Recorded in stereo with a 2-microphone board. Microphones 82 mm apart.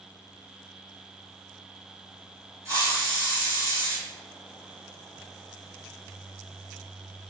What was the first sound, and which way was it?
A hiss, 40° right (ahead or behind).